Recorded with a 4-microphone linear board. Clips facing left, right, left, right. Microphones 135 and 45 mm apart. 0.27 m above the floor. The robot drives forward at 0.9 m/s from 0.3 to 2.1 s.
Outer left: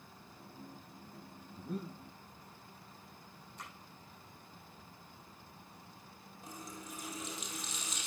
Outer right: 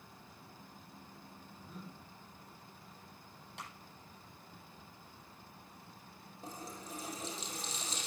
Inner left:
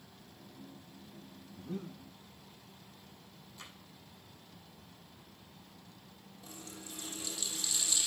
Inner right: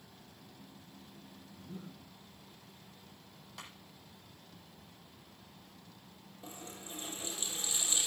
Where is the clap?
80° right, 10 m.